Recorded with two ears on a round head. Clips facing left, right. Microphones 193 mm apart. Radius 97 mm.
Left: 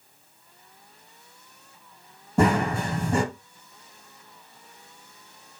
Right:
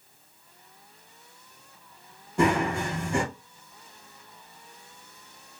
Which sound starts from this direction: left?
Running footsteps, at 2.4 s.